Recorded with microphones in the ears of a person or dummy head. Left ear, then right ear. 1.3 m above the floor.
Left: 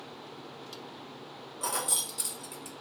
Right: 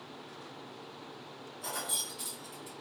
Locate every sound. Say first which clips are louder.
1.6 s keys jangling: left 4 dB; 45° left (ahead or behind), 0.5 m